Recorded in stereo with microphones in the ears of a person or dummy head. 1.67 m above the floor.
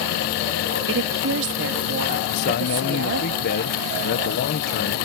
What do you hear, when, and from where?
0.9 s a woman speaking: 65° right (ahead or behind)
2.3 s a man speaking: 55° left (ahead or behind)